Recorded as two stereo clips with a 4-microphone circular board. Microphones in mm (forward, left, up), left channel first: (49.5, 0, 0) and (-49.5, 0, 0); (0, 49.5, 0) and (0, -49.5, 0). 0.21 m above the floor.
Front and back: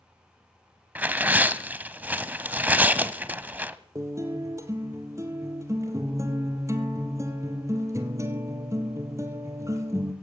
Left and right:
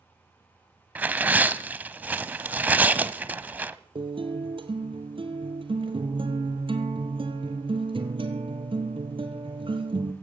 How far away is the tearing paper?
About 1.0 m.